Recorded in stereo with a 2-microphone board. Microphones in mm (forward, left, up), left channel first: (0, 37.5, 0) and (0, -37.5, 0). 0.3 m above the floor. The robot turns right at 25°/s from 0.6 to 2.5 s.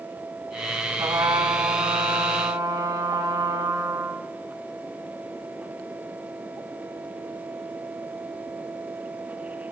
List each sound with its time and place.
1.0 s a trumpet: 95° right, 1.9 m; by 4.3 s 55° right, 1.9 m